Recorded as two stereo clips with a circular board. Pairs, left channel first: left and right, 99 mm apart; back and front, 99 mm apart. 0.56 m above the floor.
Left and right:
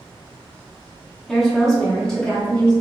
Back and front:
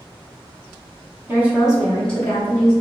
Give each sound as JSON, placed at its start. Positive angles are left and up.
{"t": 1.3, "sound": "a woman speaking", "azimuth_deg": 0, "distance_m": 0.8}